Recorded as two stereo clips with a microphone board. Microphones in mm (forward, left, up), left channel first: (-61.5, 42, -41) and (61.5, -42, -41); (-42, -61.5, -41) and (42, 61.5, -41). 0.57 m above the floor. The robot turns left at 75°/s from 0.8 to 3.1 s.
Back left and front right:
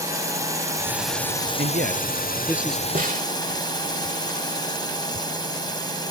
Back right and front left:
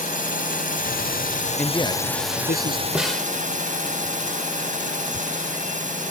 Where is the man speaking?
40° right; by 2.9 s 135° right.